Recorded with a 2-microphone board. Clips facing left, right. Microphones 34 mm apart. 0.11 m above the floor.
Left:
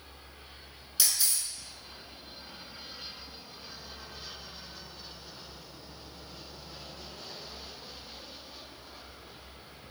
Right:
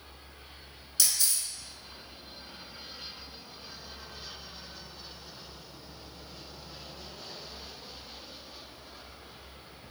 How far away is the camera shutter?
About 0.8 m.